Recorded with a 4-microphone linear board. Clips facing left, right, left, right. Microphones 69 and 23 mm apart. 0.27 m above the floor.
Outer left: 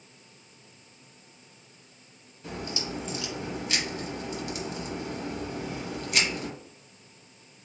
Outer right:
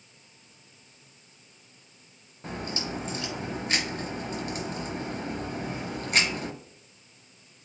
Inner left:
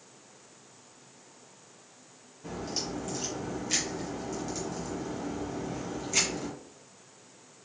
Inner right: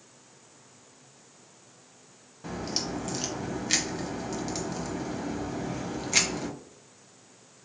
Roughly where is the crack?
Right.